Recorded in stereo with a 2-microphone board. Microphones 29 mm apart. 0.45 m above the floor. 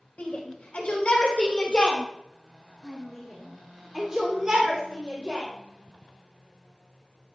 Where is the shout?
55° left (ahead or behind), 2.5 m; by 5.5 s 45° right (ahead or behind), 2 m.